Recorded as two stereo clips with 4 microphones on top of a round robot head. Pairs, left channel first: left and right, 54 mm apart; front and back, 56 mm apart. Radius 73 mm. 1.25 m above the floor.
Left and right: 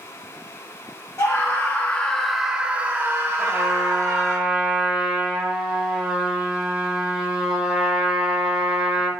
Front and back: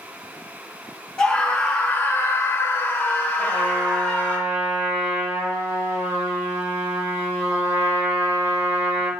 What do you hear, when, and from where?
1.2 s a scream: 70° left, 0.8 m; by 4.4 s 65° right, 1.4 m
3.4 s a trumpet: 160° right, 1.2 m